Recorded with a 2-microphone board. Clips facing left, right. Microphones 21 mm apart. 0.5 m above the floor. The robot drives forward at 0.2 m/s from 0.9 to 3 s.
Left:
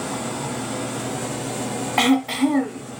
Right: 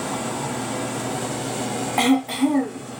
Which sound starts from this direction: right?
Running water, at 0.0 s.